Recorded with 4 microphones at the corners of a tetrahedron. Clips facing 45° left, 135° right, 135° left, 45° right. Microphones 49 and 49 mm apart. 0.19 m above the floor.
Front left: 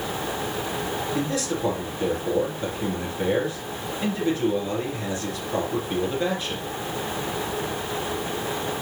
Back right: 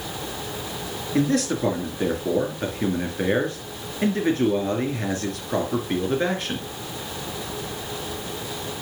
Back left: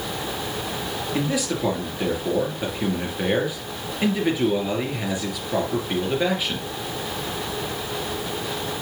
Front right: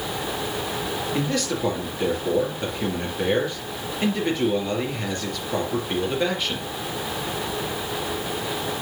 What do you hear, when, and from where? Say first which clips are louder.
1.1 s a man speaking: back right 9 dB, back left 2 dB; 150° right, 3 m